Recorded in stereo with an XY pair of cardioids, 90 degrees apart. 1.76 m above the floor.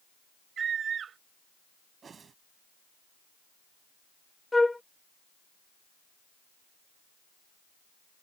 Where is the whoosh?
50° right.